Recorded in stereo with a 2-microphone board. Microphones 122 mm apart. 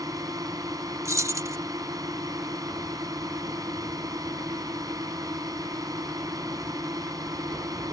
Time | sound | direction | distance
0.0 | a drone | 30° right (ahead or behind) | ?
1.1 | keys jangling | 25° right (ahead or behind) | ?